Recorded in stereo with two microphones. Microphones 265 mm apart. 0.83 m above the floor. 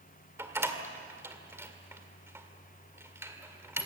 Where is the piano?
No piano in this recording.